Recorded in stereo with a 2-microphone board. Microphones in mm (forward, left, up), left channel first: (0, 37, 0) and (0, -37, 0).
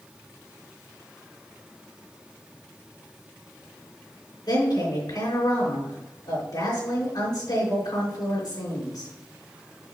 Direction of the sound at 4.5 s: 65° left (ahead or behind).